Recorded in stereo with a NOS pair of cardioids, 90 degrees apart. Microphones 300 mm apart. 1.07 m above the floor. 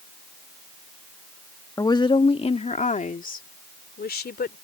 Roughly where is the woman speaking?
Ahead.